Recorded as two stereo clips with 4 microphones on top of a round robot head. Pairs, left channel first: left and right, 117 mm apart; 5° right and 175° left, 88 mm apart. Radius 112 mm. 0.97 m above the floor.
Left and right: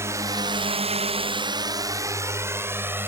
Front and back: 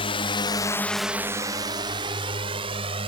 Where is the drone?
20° right; by 3.1 s 160° right.